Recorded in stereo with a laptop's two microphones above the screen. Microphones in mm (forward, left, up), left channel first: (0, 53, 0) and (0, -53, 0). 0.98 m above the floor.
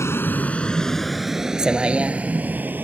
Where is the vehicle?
25° left (ahead or behind); by 2.8 s 20° right (ahead or behind).